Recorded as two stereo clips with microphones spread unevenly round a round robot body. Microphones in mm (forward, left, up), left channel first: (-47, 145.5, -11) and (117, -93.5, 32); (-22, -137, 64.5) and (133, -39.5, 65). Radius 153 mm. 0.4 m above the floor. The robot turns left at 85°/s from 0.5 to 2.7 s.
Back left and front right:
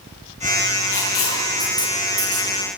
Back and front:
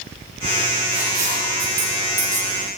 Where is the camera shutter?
No camera shutter in this recording.